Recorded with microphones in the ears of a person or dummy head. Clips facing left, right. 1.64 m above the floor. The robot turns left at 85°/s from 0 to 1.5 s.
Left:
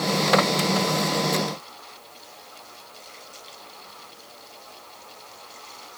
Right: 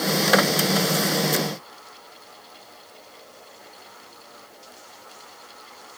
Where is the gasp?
I don't hear a gasp.